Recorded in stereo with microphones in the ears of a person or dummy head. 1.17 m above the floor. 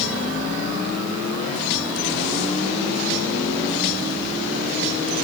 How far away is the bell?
I don't hear a bell.